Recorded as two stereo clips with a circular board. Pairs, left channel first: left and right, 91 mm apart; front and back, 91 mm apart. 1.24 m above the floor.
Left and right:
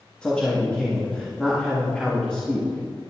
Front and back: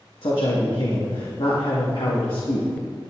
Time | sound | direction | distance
0.2 | a man speaking | 10° left | 1.8 m